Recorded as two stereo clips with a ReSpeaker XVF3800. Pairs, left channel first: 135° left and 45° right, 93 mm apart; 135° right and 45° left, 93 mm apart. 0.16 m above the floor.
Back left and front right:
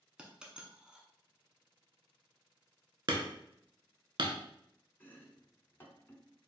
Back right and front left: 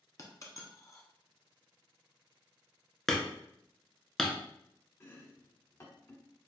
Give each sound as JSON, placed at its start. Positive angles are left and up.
{"t": 0.2, "sound": "a dropped coin", "azimuth_deg": -120, "distance_m": 0.8}
{"t": 3.1, "sound": "hammering", "azimuth_deg": -50, "distance_m": 0.6}
{"t": 5.0, "sound": "chopping", "azimuth_deg": -175, "distance_m": 0.5}